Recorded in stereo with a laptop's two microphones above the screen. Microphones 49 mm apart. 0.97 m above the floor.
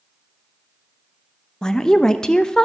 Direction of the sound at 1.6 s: 10° left (ahead or behind).